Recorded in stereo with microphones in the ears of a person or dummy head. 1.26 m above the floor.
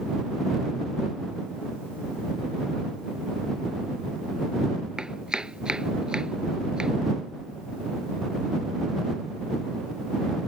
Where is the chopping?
Centre (ahead or behind).